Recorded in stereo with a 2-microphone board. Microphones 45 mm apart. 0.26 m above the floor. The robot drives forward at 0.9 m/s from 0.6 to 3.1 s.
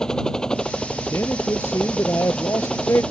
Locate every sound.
0.0 s a helicopter: 15° left (ahead or behind)
1.1 s a man speaking: 70° left (ahead or behind); by 3.0 s 75° left (ahead or behind)